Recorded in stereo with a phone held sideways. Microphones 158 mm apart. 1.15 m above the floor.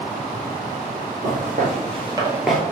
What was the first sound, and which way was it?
Footsteps, 60° right (ahead or behind).